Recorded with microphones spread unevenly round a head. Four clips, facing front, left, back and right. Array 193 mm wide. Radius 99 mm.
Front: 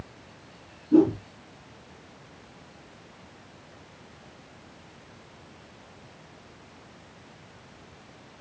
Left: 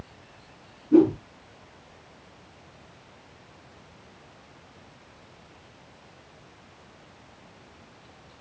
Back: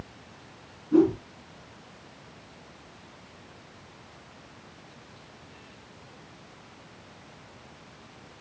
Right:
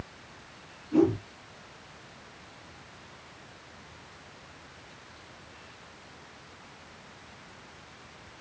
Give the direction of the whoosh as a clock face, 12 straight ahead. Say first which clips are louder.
Left 6 dB, front 1 dB; 10 o'clock.